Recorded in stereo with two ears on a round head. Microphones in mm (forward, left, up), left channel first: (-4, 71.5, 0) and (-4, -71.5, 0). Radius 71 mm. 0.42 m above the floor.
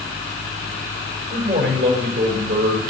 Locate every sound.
1.3 s a man speaking: 75° right (ahead or behind), 6 m